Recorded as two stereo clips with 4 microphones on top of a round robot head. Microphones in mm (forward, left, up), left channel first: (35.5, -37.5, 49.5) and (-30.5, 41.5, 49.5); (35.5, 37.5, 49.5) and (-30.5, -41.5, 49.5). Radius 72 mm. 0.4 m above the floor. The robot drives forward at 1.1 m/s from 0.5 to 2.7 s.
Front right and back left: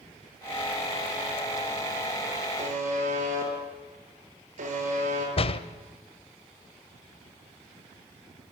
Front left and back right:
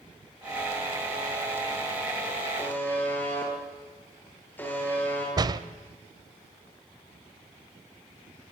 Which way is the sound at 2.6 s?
125° left.